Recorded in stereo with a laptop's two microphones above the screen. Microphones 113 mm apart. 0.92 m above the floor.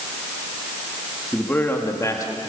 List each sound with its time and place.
1.3 s a man speaking: 10° left (ahead or behind), 1.7 m; by 2.4 s 35° left (ahead or behind), 1.9 m